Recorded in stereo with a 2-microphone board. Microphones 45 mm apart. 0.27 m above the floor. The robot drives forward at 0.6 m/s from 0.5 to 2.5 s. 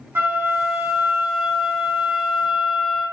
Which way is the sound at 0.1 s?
60° right (ahead or behind).